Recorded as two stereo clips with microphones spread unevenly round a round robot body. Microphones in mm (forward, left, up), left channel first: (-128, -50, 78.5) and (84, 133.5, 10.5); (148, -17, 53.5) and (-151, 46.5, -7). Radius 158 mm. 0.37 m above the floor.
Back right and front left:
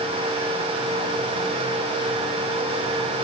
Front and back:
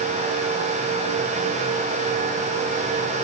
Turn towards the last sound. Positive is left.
No sound to turn to.